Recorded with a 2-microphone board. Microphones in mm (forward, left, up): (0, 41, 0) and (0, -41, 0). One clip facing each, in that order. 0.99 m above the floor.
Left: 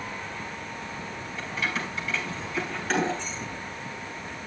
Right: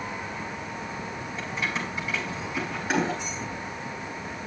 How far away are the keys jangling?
About 4.5 m.